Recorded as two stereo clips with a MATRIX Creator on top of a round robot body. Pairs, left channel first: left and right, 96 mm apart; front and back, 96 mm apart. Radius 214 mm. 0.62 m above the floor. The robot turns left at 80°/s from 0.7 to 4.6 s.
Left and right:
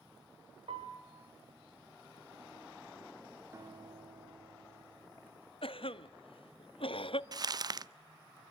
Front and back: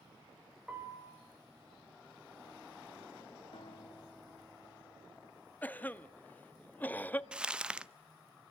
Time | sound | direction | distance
0.7 | a piano | 100° right | 4.5 m
3.5 | a guitar | 30° right | 1.6 m
5.6 | a cough | 70° left | 1.3 m
7.3 | crumpling | 105° right | 0.9 m